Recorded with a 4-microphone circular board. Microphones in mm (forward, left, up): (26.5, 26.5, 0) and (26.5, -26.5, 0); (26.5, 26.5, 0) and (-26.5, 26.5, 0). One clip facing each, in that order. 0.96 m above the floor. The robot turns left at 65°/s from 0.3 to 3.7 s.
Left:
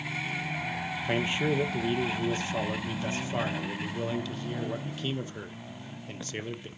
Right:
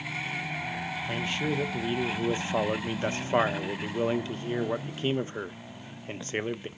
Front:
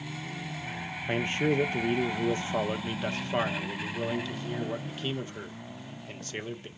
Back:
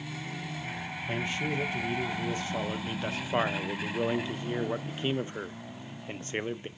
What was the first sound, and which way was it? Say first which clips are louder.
A man speaking: left 3 dB, front 5 dB; 45° left.